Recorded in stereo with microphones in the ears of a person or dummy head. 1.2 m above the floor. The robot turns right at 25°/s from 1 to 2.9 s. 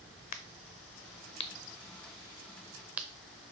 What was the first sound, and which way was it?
A crack, 40° left (ahead or behind).